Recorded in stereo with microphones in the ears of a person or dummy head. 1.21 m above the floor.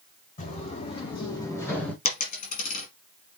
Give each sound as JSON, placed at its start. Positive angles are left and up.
{"t": 0.4, "sound": "footsteps", "side_deg": 40, "distance_m": 4.0}
{"t": 2.0, "sound": "a dropped coin", "side_deg": 45, "distance_m": 3.5}